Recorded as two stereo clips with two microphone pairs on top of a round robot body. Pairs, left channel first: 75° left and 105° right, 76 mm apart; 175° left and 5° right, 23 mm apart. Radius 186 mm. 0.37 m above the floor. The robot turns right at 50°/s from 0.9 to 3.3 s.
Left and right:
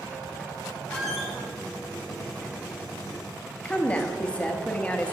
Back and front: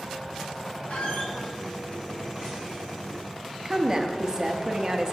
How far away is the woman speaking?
About 0.9 m.